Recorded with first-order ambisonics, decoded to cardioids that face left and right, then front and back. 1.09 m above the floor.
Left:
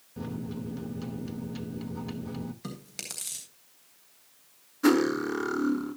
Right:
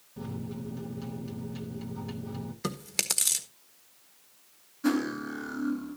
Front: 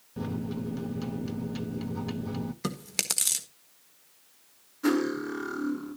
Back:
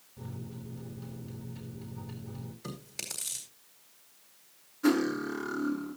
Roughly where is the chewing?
Ahead right.